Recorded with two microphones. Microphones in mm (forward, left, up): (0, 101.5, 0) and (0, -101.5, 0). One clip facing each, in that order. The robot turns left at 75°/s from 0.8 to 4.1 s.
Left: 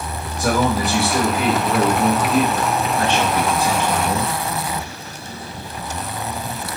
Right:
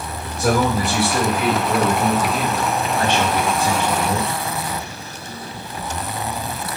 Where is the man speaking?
165° right, 1.8 m; by 4.3 s 50° right, 1.8 m.